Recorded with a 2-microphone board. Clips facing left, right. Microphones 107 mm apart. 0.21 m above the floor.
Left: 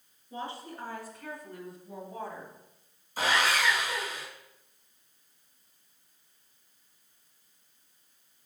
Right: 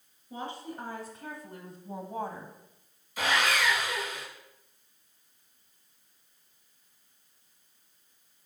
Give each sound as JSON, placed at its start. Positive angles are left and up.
{"t": 0.3, "sound": "a woman speaking", "side_deg": -20, "distance_m": 2.5}
{"t": 3.2, "sound": "sawing", "side_deg": 35, "distance_m": 2.0}